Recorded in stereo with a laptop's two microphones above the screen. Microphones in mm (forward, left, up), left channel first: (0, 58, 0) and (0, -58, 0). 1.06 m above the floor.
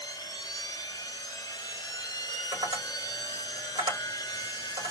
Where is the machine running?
35° left (ahead or behind), 0.9 m.